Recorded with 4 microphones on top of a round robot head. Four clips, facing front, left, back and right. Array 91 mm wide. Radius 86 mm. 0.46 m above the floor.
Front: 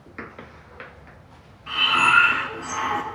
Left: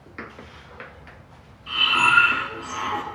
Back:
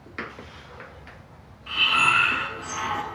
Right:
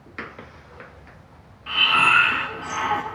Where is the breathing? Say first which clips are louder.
Right 1 dB, front 3 dB; 70° right, 4 m.